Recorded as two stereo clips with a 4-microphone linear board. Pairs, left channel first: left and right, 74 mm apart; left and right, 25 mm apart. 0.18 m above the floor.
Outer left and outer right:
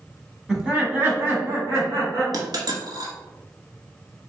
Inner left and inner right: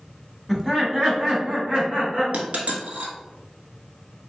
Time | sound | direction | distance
0.5 | laughter | 5° right (ahead or behind) | 1.1 m
2.3 | a dropped coin | 60° right (ahead or behind) | 0.8 m